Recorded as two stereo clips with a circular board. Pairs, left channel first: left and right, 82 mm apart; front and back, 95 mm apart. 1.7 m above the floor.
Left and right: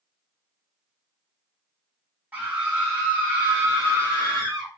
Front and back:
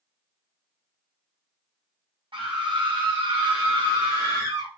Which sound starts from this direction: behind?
A scream, at 2.3 s.